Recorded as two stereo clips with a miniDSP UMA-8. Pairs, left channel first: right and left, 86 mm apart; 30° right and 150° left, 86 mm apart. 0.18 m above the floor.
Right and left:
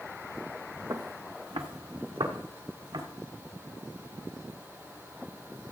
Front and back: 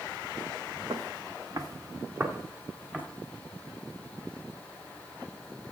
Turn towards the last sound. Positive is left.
turn(degrees=75)